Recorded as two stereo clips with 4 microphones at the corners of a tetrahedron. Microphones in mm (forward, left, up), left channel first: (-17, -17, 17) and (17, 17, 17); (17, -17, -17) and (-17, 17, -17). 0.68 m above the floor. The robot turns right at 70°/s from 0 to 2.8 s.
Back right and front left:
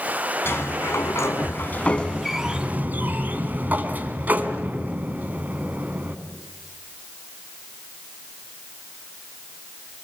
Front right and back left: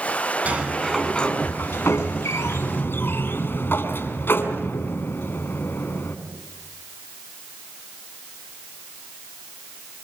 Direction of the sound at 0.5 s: 170° right.